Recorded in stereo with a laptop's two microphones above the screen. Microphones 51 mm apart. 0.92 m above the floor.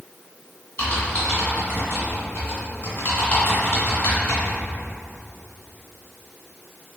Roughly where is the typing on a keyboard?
Left.